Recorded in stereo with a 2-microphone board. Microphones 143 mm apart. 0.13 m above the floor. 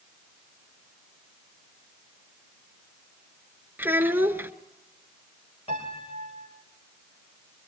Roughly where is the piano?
Left.